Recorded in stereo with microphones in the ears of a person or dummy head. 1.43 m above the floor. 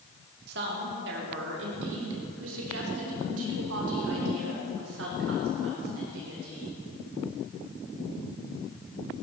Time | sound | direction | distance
0.5 | a woman speaking | 55° right (ahead or behind) | 2.5 m